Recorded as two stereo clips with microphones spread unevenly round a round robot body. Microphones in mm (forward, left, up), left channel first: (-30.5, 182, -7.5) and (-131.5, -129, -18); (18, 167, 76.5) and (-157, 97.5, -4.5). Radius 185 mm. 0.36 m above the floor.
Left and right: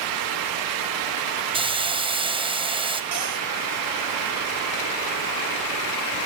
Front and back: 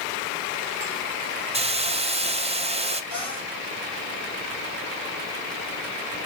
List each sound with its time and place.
1.5 s a hiss: straight behind, 2 m
3.1 s a cupboard door: 90° right, 8.5 m